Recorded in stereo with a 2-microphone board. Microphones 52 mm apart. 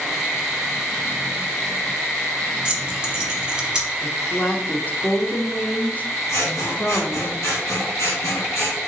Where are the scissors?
70° left (ahead or behind), 1.9 m.